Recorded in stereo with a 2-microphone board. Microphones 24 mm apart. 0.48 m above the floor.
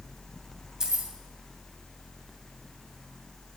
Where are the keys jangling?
30° right (ahead or behind), 2.5 m.